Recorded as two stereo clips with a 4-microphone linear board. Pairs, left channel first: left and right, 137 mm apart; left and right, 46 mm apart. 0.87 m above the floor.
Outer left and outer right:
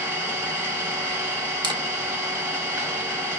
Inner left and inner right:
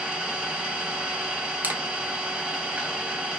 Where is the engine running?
15° right (ahead or behind), 0.9 m.